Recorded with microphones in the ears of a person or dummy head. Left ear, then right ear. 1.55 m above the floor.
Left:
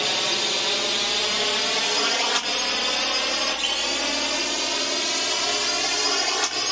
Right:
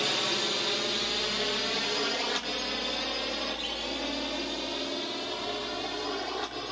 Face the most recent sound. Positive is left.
turn(degrees=60)  # may be behind; listen again after turning